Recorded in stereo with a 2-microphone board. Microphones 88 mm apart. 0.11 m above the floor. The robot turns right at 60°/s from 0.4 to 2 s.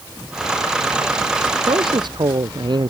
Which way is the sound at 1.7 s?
80° right.